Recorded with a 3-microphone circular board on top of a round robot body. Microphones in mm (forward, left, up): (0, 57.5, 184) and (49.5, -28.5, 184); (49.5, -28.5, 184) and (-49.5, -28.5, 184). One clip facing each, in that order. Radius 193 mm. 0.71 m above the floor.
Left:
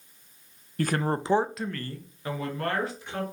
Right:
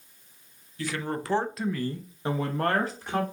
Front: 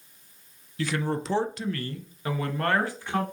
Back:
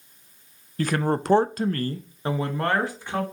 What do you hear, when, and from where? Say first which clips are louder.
0.8 s a man speaking: left 5 dB, back 4 dB; 145° left, 0.6 m; by 3.2 s 105° right, 1.2 m